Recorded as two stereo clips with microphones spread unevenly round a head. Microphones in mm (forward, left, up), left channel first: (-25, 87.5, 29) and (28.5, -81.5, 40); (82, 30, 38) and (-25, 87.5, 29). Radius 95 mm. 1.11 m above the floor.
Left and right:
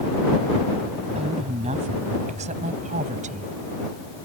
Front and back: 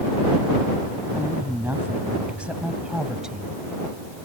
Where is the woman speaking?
130° right; by 3.6 s 120° right.